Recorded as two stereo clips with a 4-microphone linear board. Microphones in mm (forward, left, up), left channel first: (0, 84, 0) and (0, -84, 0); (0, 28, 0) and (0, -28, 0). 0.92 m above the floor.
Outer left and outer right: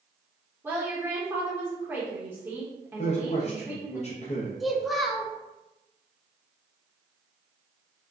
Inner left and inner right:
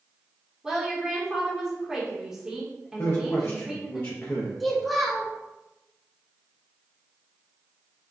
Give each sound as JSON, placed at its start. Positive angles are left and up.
{"t": 0.6, "sound": "a woman speaking", "side_deg": -15, "distance_m": 1.0}
{"t": 3.0, "sound": "a man speaking", "side_deg": 40, "distance_m": 0.5}
{"t": 4.6, "sound": "a child speaking", "side_deg": 0, "distance_m": 0.6}